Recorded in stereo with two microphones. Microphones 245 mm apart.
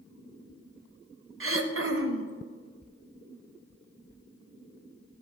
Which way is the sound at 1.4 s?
55° right (ahead or behind).